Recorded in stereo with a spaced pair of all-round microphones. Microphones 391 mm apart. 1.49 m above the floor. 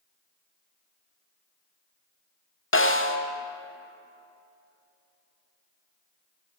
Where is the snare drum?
30° left (ahead or behind), 0.8 m.